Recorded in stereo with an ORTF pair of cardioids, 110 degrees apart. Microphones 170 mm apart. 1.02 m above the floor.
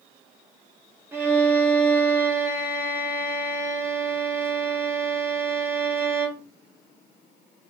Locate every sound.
1.1 s a violin: 15° right, 1.2 m